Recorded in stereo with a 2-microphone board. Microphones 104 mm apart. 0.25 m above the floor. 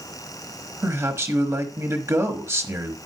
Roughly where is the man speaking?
Right.